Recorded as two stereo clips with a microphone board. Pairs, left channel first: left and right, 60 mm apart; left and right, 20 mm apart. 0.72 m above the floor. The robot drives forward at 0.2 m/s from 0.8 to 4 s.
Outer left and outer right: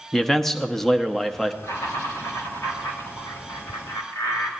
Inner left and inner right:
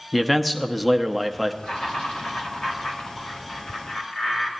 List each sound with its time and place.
0.1 s a man speaking: 5° left (ahead or behind), 0.7 m
1.6 s laughter: 75° left (ahead or behind), 3.5 m; by 4.5 s 70° left (ahead or behind), 3.5 m